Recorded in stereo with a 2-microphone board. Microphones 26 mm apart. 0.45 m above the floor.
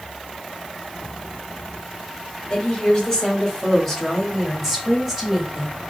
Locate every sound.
2.5 s a woman speaking: 25° left (ahead or behind), 2.5 m; by 5.8 s 20° right (ahead or behind), 1.9 m